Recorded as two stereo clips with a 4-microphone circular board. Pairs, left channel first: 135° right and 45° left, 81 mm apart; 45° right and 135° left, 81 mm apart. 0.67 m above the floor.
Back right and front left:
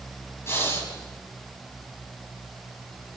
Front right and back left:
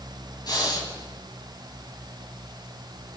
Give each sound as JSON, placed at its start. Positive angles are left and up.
{"t": 0.5, "sound": "breathing", "azimuth_deg": -80, "distance_m": 4.5}